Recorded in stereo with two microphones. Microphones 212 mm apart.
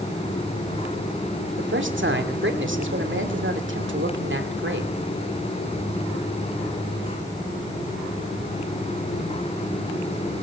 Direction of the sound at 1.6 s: 65° right (ahead or behind).